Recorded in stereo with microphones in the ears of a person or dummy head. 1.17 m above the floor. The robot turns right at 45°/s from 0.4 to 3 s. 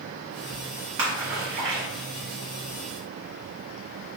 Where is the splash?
40° right (ahead or behind), 1.5 m; by 1.9 s 65° right (ahead or behind), 1.5 m.